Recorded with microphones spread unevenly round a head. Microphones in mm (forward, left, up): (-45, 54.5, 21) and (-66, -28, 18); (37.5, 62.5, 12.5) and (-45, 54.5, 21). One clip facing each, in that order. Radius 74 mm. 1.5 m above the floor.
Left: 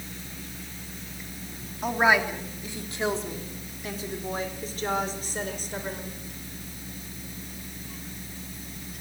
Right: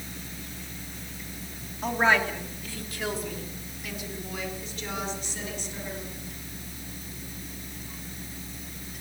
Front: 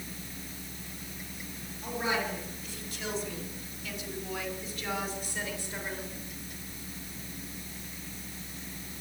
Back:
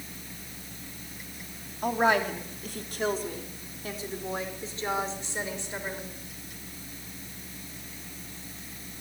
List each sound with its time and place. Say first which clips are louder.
1.8 s a woman speaking: left 1 dB, back 8 dB; 160° left, 3.5 m; by 6.2 s 115° left, 6.5 m